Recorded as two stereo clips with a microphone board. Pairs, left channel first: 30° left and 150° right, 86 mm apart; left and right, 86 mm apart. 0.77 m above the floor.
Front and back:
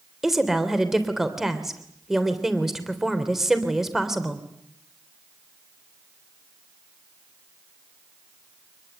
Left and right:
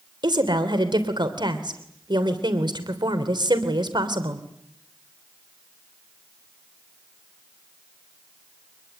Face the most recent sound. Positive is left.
turn(degrees=-65)